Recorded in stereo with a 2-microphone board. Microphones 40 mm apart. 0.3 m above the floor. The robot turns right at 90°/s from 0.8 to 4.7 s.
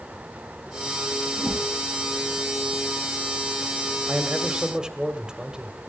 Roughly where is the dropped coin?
No dropped coin in this recording.